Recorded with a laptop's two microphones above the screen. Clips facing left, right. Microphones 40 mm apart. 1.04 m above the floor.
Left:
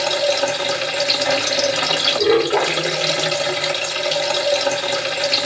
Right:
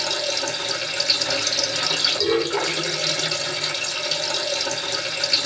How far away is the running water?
About 1.4 m.